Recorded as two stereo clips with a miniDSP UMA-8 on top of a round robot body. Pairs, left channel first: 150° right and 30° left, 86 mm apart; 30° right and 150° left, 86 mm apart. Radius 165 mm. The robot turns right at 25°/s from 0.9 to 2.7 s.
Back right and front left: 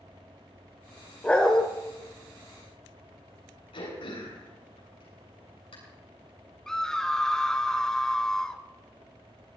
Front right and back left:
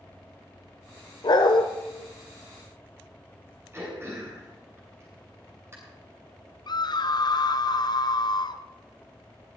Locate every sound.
1.2 s a dog barking: 75° right, 1.0 m; by 1.6 s 65° right, 1.0 m
3.7 s throat clearing: 150° right, 8.5 m
6.7 s a scream: 65° right, 1.3 m